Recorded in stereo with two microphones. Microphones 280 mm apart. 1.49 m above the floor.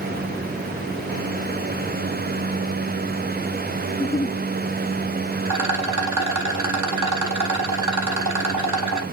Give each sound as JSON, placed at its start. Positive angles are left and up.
{"t": 3.9, "sound": "a giggle", "side_deg": 15, "distance_m": 0.8}
{"t": 5.5, "sound": "a rattle", "side_deg": -75, "distance_m": 2.0}